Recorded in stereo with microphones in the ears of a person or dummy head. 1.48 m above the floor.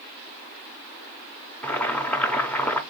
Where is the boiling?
5° left (ahead or behind), 0.8 m.